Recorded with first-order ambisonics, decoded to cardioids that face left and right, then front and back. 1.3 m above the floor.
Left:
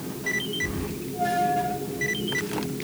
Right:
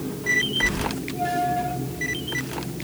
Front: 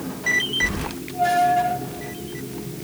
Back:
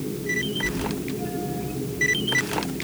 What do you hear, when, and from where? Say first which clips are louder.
0.6 s keys jangling: right 7 dB, front 3 dB; 40° right, 4.5 m